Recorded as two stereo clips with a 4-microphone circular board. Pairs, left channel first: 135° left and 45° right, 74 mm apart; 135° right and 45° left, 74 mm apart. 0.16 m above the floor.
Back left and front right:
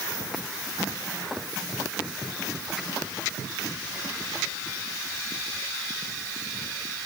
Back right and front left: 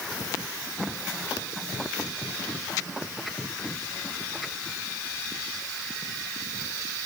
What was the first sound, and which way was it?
Only background noise.